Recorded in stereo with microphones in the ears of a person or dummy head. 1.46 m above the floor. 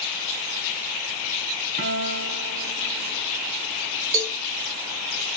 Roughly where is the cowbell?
Right.